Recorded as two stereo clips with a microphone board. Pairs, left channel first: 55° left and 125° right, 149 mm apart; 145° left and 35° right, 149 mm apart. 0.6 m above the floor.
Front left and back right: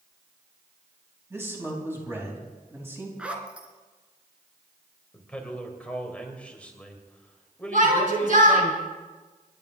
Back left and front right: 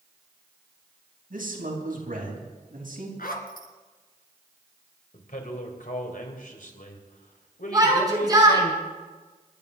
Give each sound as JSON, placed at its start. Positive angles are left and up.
{"t": 1.3, "sound": "a man speaking", "azimuth_deg": -50, "distance_m": 4.5}
{"t": 3.2, "sound": "a zipper", "azimuth_deg": 155, "distance_m": 2.0}
{"t": 5.1, "sound": "a man speaking", "azimuth_deg": 135, "distance_m": 3.0}
{"t": 7.7, "sound": "a shout", "azimuth_deg": -100, "distance_m": 5.5}